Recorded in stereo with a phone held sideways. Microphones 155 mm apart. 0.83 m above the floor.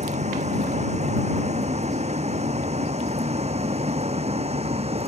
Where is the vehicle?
45° right (ahead or behind); by 5.1 s 40° right (ahead or behind).